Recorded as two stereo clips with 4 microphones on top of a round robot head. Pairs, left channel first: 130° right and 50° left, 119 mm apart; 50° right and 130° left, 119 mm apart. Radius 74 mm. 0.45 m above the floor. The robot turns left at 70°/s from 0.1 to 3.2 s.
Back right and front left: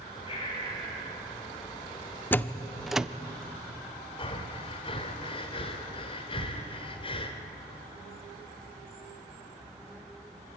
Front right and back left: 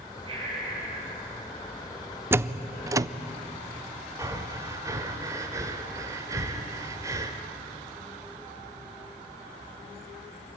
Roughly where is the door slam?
Behind.